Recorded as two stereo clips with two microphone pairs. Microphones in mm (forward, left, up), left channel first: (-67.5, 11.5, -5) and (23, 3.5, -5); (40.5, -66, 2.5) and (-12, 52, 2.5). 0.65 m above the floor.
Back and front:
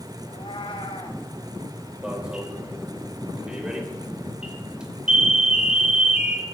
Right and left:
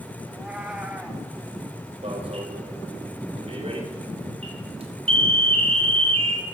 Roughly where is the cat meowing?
Behind.